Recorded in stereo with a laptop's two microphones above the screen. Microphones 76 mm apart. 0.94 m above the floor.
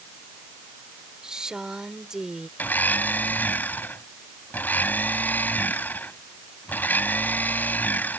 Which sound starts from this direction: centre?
A woman speaking, at 1.2 s.